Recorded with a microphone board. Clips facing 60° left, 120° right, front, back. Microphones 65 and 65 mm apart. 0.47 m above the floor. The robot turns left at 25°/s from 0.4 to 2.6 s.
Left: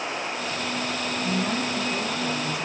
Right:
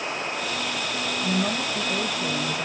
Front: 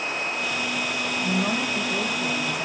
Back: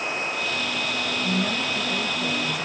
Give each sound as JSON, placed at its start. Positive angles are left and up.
{"t": 1.2, "sound": "a woman speaking", "azimuth_deg": -60, "distance_m": 2.0}